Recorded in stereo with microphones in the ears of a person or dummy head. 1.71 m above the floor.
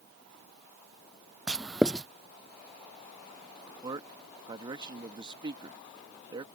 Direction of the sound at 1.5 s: Centre (ahead or behind).